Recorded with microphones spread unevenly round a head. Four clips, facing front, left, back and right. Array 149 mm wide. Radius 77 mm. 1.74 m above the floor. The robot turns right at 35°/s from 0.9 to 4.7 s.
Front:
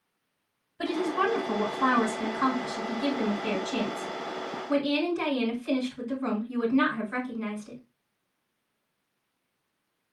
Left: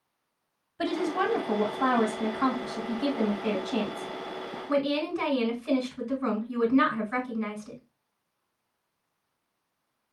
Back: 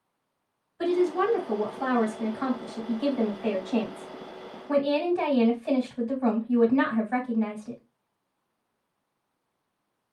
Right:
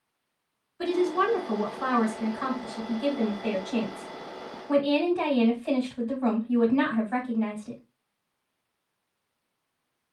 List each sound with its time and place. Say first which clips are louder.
0.8 s a woman speaking: right 3 dB, back 3 dB; 80° left, 3 m; by 7.8 s 150° right, 3 m